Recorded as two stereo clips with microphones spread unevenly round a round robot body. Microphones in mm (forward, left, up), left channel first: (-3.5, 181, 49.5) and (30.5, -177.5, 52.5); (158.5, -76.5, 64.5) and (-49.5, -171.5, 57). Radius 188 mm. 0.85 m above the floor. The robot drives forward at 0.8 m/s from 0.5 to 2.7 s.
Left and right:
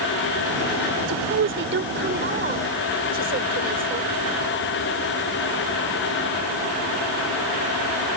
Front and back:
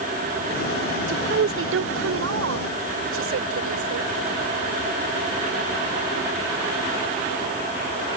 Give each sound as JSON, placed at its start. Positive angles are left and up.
{"t": 1.1, "sound": "a woman speaking", "azimuth_deg": -135}